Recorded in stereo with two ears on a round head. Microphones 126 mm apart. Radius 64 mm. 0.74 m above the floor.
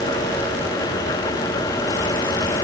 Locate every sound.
Only background noise.